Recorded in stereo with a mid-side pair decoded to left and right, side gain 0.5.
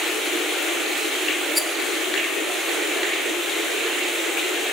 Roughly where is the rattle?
Ahead.